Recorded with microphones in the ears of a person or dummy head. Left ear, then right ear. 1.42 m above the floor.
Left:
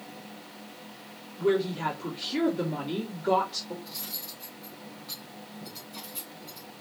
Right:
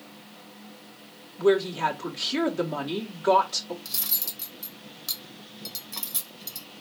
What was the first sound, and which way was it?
A woman speaking, 45° right (ahead or behind).